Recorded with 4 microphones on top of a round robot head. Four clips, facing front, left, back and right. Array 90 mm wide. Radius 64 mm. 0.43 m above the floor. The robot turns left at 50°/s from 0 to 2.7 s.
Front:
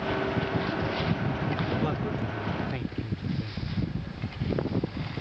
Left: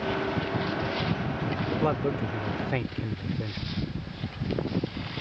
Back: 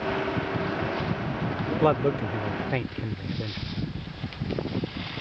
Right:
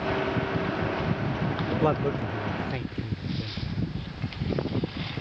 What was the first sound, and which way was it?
A man speaking, 165° right.